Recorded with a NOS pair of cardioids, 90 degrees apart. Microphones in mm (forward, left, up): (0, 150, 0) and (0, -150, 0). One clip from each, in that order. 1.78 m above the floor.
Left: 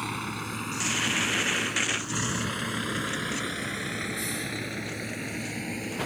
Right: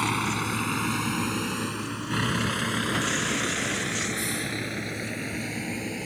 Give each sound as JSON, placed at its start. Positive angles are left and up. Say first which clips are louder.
{"t": 0.0, "sound": "a vehicle", "louder": "right 6 dB", "azimuth_deg": -50}